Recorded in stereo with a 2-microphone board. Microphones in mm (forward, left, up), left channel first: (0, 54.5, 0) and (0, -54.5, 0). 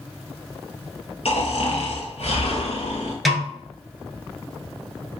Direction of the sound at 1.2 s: 70° left (ahead or behind).